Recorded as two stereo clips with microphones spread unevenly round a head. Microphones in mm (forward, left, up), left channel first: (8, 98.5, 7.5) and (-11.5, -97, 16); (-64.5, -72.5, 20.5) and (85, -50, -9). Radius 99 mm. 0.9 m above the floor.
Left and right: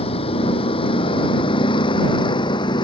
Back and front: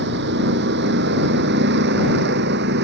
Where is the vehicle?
20° left; by 2.8 s 15° left.